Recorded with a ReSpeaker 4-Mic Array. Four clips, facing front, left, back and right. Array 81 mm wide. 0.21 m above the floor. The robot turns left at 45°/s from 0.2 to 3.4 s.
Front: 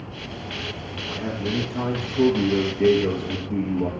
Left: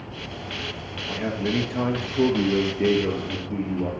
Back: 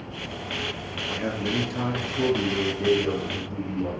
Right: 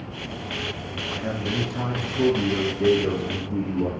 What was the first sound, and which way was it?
A man speaking, 130° left.